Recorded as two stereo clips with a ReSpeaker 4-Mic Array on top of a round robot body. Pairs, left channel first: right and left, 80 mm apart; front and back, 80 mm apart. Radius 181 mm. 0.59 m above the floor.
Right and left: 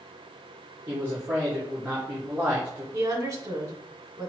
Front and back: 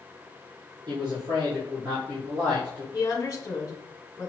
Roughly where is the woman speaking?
Ahead left.